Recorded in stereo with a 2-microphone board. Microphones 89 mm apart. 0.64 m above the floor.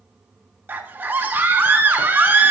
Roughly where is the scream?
Right.